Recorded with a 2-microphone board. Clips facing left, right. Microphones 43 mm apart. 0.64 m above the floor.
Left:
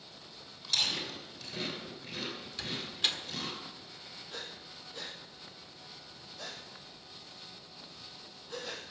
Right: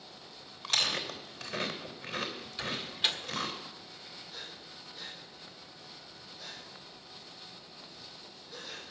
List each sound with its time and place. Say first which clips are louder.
0.6 s chewing: right 2 dB; 40° right (ahead or behind), 3 m
2.6 s a door slam: right 2 dB; 5° right (ahead or behind), 1.4 m
4.3 s breathing: left 4 dB; 80° left, 3.5 m